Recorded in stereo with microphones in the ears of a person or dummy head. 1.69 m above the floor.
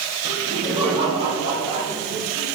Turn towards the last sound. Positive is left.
turn(degrees=-30)  # may be behind; listen again after turning